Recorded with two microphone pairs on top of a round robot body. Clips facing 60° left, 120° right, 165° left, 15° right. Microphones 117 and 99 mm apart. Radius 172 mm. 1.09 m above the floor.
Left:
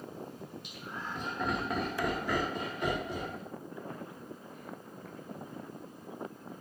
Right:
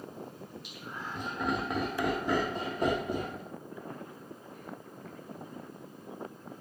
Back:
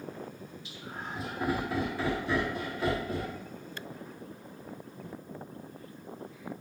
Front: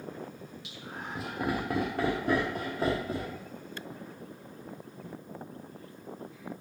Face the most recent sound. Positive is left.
turn(degrees=-95)